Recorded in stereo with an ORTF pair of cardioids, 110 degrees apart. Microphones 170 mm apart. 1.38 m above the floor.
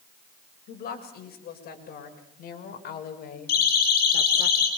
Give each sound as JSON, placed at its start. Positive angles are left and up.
{"t": 0.7, "sound": "a woman speaking", "azimuth_deg": 65, "distance_m": 7.5}
{"t": 3.5, "sound": "a siren", "azimuth_deg": 60, "distance_m": 8.5}